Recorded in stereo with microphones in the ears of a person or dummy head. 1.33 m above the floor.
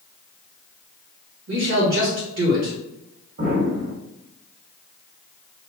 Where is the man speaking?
70° right (ahead or behind), 1.3 m.